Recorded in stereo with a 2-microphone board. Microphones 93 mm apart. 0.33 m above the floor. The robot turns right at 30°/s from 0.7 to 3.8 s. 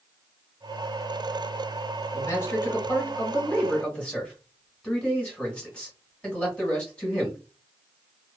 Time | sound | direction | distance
2.1 | a man speaking | 105° left | 1.2 m